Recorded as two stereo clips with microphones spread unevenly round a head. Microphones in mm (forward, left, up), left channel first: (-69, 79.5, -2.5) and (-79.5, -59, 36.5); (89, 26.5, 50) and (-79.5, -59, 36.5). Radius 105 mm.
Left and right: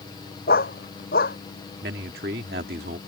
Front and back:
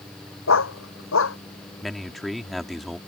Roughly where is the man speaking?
Ahead right.